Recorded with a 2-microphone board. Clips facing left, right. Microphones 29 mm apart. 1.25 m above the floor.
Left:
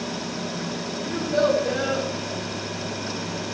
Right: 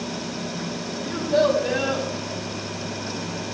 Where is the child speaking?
70° right (ahead or behind), 6 m; by 2.1 s 60° right (ahead or behind), 6 m.